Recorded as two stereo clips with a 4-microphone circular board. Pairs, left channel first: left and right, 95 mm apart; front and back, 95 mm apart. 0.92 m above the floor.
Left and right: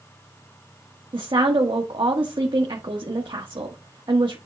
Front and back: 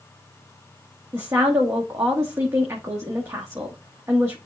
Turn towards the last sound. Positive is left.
turn(degrees=-120)